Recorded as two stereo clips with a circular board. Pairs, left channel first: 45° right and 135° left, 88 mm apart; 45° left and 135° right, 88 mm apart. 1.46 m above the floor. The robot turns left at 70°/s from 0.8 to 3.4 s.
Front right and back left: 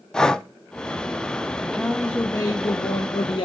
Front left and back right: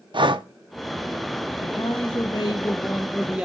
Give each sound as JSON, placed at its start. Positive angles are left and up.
{"t": 0.1, "sound": "breathing", "azimuth_deg": -125, "distance_m": 0.6}
{"t": 1.6, "sound": "a man speaking", "azimuth_deg": 60, "distance_m": 1.7}